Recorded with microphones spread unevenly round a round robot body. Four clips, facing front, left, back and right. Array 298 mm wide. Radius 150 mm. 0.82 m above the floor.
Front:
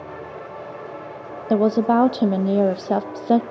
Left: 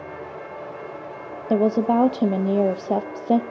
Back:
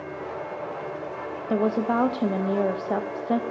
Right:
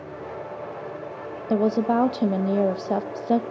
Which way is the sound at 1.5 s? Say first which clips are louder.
Left 2 dB, front 6 dB; 10° left.